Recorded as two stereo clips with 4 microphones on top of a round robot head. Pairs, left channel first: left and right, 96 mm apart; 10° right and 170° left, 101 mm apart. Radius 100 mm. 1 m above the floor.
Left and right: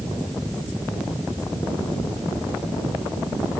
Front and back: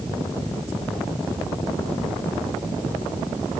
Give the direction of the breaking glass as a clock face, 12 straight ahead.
No breaking glass in this recording.